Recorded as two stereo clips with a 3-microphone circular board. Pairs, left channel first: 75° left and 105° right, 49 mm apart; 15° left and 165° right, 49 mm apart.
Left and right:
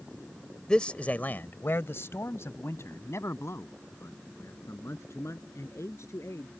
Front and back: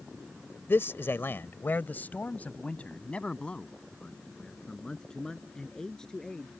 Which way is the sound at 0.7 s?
5° left.